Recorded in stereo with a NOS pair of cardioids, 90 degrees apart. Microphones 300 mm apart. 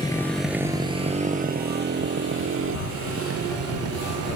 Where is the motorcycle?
15° left; by 4.4 s 50° right.